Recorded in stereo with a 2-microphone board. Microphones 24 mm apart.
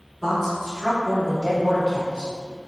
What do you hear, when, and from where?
0.2 s a woman speaking: 20° left (ahead or behind), 1.3 m; by 2.3 s 40° right (ahead or behind), 1.6 m